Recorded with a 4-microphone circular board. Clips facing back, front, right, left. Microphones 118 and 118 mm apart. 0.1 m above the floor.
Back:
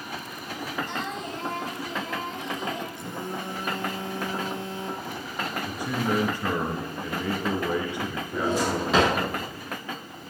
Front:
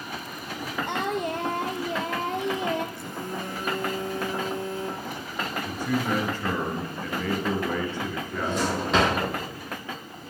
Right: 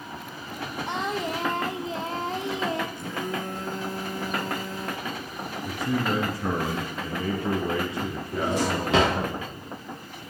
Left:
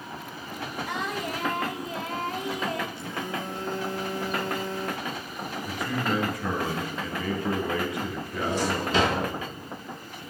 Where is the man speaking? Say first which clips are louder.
Front 1 dB, right 3 dB; 115° right, 1.7 m.